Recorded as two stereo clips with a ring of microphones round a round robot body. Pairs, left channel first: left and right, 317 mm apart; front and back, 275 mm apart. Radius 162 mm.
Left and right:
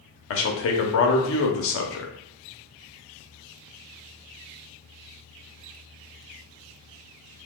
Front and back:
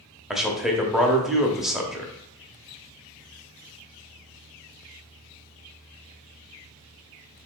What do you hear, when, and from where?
0.3 s a man speaking: 90° left, 0.9 m